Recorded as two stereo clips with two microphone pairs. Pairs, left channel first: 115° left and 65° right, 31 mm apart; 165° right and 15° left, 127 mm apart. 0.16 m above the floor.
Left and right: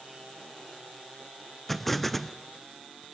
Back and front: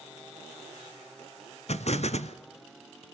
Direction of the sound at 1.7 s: 165° right.